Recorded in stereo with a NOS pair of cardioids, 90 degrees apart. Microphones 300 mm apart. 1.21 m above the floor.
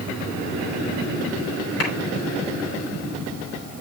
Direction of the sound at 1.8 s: 50° left.